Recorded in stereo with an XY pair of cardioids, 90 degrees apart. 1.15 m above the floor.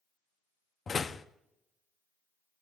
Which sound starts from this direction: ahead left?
A door slam, at 0.9 s.